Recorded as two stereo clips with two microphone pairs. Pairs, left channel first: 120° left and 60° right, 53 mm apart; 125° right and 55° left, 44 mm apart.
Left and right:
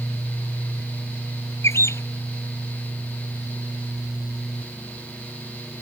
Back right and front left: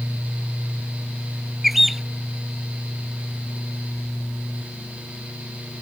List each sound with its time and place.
1.6 s a bird: 140° left